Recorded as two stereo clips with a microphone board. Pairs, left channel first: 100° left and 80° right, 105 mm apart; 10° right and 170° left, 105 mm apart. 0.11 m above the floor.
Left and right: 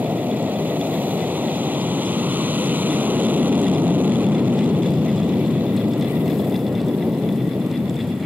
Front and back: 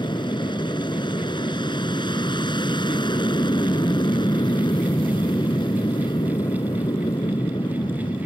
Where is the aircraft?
15° right.